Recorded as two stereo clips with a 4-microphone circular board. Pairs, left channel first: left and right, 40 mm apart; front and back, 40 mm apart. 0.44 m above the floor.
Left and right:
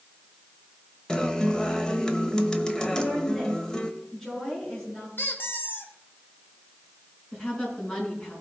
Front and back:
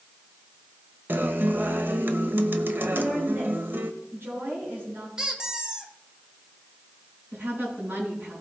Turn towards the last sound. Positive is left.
turn(degrees=150)